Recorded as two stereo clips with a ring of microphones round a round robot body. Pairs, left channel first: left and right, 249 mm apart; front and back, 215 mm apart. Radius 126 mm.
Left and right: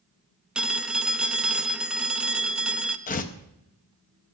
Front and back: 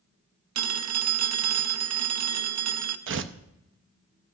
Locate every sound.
0.6 s a phone ringing: 175° right, 0.7 m
3.1 s tearing paper: 150° left, 0.7 m